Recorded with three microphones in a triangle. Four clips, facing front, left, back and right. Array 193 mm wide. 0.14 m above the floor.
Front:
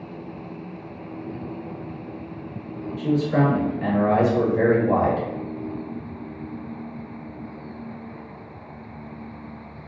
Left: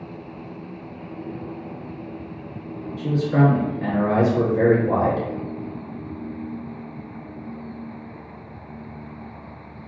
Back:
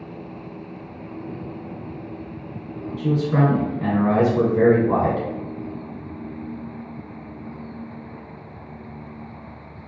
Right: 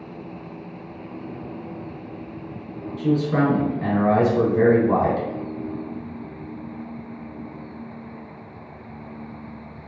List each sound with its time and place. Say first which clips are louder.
3.0 s a man speaking: even, even; 135° right, 1.3 m